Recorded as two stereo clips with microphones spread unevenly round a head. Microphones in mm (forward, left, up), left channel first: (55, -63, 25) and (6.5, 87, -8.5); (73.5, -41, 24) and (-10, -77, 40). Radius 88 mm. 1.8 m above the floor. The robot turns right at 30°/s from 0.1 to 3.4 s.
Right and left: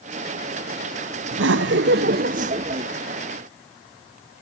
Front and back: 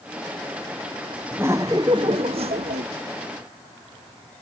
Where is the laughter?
125° left, 0.6 m; by 2.9 s 170° left, 0.6 m.